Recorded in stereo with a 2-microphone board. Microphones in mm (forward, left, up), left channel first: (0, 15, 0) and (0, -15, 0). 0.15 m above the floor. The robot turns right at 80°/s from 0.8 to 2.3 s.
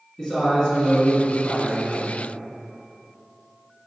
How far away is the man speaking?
About 1.2 m.